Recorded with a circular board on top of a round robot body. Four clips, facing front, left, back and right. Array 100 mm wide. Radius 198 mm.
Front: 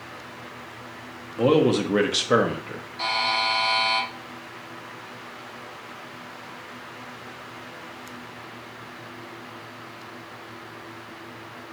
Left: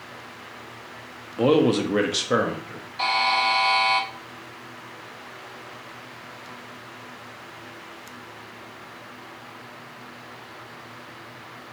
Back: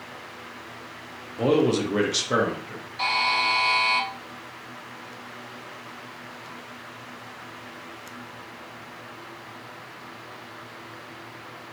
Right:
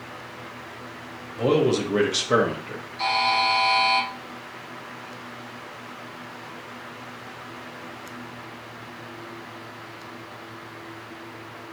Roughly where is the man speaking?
Left.